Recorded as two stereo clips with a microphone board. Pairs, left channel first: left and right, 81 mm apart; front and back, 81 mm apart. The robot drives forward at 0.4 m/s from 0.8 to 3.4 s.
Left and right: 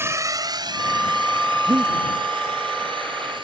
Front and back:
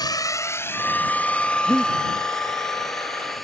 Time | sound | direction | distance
0.0 | a drone | 30° right | ?
1.7 | breathing | 55° right | ?